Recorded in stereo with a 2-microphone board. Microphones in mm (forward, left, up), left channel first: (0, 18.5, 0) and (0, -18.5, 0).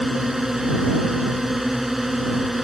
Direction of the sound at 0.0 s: 10° right (ahead or behind).